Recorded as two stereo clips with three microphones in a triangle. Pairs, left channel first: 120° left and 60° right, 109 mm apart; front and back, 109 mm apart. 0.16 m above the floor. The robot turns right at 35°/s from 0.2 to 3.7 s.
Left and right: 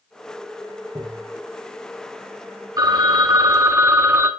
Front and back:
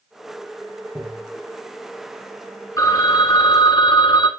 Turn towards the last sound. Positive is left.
turn(degrees=-5)